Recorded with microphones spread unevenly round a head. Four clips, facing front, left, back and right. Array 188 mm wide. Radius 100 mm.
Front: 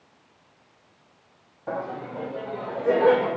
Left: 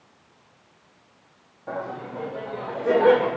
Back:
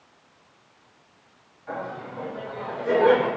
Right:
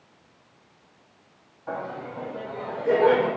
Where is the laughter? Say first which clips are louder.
Left 1 dB, front 2 dB; 20° left, 1.7 m; by 3.3 s 65° left, 3 m.